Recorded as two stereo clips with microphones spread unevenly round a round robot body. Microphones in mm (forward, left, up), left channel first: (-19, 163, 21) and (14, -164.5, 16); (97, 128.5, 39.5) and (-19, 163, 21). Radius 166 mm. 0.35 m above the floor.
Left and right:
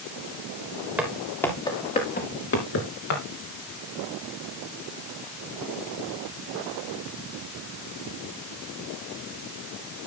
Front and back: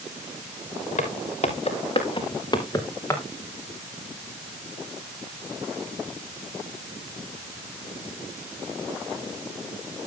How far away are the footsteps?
About 3.5 m.